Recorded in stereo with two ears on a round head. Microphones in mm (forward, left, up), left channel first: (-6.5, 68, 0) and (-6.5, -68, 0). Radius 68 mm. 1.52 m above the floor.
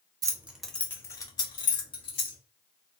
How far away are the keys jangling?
About 0.5 m.